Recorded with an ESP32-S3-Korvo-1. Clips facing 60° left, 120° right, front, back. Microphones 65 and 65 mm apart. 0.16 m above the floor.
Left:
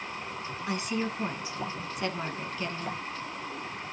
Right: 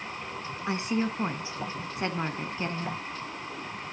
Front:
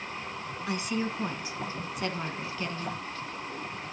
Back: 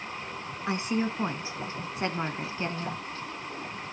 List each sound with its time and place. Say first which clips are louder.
0.7 s a woman speaking: right 3 dB, back 3 dB; 155° right, 1.2 m